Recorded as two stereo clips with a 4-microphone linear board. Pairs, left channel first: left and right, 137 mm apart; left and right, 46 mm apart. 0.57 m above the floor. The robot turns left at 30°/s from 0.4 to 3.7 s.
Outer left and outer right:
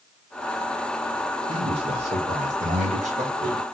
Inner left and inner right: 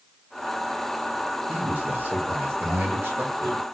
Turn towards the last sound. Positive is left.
turn(degrees=-110)